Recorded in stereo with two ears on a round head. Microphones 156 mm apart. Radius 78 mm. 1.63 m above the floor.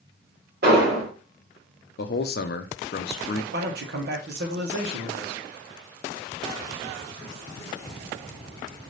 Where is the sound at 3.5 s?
60° right (ahead or behind), 1.2 m.